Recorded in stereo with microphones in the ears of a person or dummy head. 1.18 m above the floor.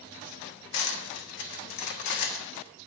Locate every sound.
0.7 s cutlery clinking: 65° left (ahead or behind), 1.3 m